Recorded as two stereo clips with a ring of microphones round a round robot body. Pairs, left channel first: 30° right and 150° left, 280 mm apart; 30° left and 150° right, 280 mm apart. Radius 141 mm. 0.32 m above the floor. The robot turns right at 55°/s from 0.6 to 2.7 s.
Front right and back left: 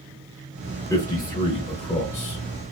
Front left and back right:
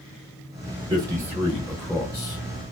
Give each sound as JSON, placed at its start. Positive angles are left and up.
{"t": 0.9, "sound": "a man speaking", "azimuth_deg": -100, "distance_m": 0.9}